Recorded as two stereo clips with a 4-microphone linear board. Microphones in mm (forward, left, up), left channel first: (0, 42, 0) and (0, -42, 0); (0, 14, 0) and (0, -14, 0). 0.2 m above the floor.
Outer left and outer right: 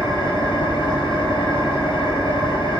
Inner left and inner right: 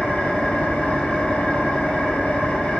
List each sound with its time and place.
0.0 s an engine running: 80° left, 1.0 m